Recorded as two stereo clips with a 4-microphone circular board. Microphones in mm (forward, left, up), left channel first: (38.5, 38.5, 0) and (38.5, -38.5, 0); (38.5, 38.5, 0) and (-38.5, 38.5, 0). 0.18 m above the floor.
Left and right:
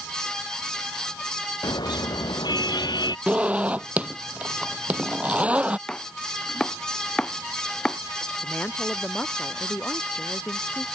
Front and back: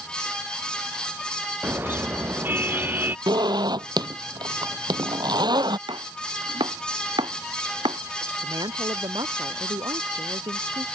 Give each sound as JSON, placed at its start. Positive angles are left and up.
{"t": 1.6, "sound": "a car horn", "azimuth_deg": 115}
{"t": 3.3, "sound": "a zipper", "azimuth_deg": -160}
{"t": 5.9, "sound": "chopping", "azimuth_deg": 170}
{"t": 8.4, "sound": "a woman speaking", "azimuth_deg": 160}